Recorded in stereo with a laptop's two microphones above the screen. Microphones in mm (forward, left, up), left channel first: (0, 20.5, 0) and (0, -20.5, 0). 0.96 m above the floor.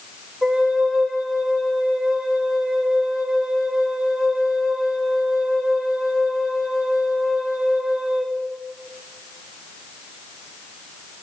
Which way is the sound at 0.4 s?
5° right (ahead or behind).